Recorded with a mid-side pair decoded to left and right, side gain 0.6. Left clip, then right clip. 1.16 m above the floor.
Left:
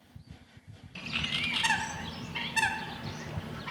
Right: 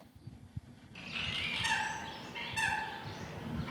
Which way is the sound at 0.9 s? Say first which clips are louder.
Left 5 dB; 50° left.